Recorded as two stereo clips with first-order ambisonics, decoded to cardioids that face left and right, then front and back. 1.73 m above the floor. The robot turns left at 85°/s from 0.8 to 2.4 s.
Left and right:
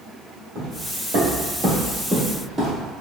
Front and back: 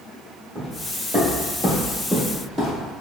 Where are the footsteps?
110° right, 1.9 m; by 2.9 s 125° right, 1.8 m.